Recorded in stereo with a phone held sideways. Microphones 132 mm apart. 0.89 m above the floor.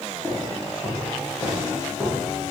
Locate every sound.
0.2 s footsteps: 10° right (ahead or behind), 7 m; by 2.5 s 10° left (ahead or behind), 6.5 m